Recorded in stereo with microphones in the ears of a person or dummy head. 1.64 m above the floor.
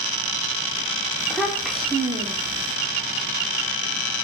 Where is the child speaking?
Centre (ahead or behind), 0.7 m.